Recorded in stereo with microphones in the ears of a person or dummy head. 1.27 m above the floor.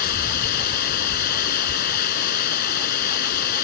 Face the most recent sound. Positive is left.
turn(degrees=50)  # may be behind; listen again after turning